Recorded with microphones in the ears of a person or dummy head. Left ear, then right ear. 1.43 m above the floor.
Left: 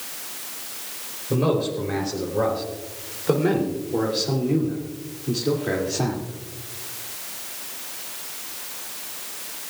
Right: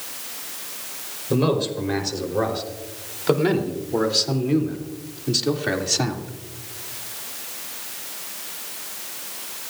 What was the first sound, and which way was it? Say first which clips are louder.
A man speaking: right 1 dB; 30° right (ahead or behind).